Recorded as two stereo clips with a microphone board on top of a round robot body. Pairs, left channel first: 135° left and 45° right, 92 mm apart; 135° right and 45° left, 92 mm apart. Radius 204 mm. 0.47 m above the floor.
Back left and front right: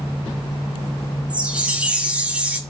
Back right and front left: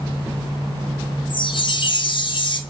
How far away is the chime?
About 0.6 m.